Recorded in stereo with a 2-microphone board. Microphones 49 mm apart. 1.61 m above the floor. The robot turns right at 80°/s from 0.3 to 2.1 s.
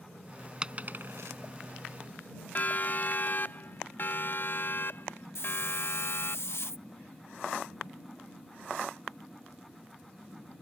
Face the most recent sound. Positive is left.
turn(degrees=60)  # may be behind; listen again after turning